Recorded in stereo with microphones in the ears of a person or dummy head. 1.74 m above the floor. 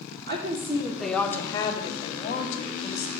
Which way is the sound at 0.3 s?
50° right (ahead or behind).